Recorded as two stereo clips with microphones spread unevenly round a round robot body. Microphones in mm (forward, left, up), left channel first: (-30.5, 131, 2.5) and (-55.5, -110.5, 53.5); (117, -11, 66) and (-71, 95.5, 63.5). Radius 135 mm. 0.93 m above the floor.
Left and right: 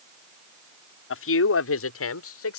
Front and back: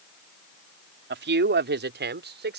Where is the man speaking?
115° left; by 2.6 s 110° left.